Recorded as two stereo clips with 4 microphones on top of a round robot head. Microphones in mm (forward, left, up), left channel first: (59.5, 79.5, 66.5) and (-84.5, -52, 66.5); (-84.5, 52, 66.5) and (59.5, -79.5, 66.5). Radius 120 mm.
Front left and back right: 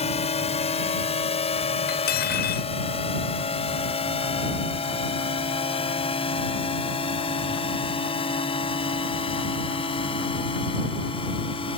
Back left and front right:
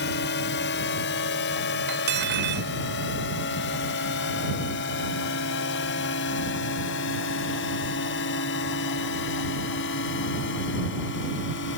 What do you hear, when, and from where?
0.0 s a drone: 100° left; by 11.8 s 105° left
1.9 s cutlery clinking: 5° right